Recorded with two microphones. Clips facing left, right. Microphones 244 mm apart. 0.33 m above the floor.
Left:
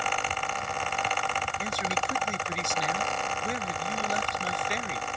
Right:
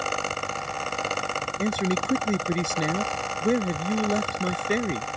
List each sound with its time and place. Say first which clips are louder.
1.6 s a man speaking: right 11 dB; 60° right (ahead or behind)